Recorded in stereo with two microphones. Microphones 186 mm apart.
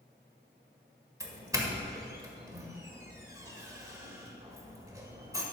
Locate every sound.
1.2 s a doorbell: 15° right (ahead or behind), 1.5 m